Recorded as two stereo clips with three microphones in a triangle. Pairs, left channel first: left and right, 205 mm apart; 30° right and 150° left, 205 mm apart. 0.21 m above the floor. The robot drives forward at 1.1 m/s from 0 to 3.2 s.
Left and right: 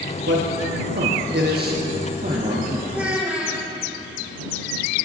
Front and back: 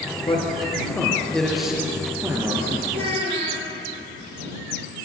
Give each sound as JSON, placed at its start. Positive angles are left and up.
{"t": 0.3, "sound": "a man speaking", "azimuth_deg": -90, "distance_m": 2.5}
{"t": 2.9, "sound": "a child speaking", "azimuth_deg": -175, "distance_m": 4.0}